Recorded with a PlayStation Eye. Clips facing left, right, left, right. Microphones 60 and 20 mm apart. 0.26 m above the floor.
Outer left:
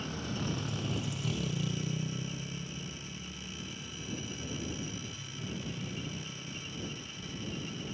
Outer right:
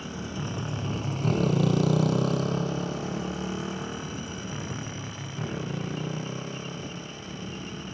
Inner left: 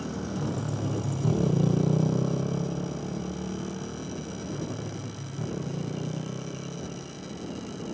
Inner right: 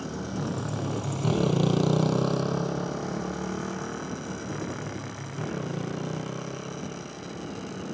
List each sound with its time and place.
0.0 s a motorcycle: 10° right (ahead or behind); by 7.9 s 45° right (ahead or behind)